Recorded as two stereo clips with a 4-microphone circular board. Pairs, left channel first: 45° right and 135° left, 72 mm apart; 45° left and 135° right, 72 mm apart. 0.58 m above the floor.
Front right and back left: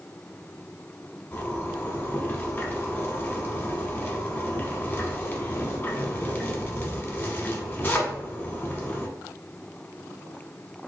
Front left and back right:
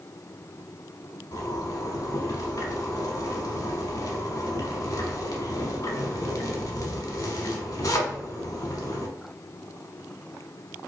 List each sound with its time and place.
1.3 s a zipper: 10° left, 0.8 m